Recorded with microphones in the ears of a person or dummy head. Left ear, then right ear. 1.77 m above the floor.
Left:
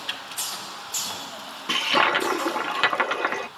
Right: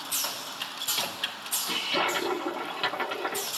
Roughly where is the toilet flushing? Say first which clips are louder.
Left 8 dB; left.